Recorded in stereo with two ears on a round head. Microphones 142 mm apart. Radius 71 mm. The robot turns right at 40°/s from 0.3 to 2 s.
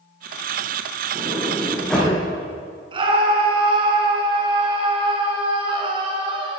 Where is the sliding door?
25° right, 8 m; by 2.1 s 5° left, 8 m.